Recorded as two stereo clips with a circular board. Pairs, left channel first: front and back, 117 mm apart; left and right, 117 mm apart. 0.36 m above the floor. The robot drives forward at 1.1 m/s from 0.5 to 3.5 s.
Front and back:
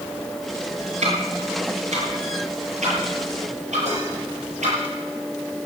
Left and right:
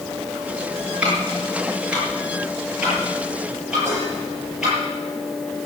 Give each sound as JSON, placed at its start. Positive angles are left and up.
{"t": 1.0, "sound": "ticking", "azimuth_deg": -170, "distance_m": 5.0}
{"t": 3.9, "sound": "dishes clattering", "azimuth_deg": -165, "distance_m": 7.0}